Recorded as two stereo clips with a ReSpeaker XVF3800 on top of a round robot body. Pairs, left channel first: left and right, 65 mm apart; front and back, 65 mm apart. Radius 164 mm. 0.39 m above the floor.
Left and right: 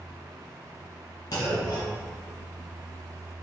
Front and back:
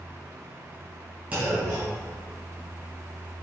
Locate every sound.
1.3 s a clunk: 110° left, 1.4 m